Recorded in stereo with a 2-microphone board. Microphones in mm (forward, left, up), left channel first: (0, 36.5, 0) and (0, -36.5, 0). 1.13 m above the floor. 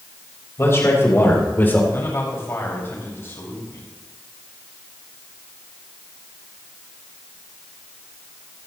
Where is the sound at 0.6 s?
35° left (ahead or behind), 5 m; by 1.8 s 25° left (ahead or behind), 3.5 m.